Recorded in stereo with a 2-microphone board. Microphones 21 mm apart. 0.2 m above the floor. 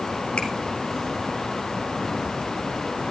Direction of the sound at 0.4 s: 75° left (ahead or behind).